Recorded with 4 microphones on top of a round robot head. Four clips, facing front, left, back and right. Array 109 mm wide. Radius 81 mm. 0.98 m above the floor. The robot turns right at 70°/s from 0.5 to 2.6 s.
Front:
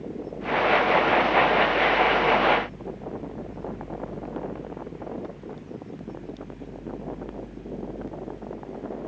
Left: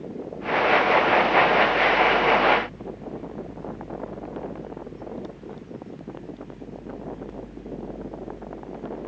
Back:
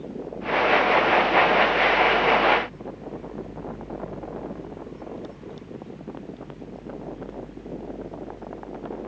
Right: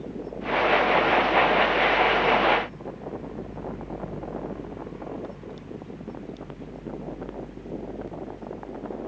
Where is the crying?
I don't hear crying.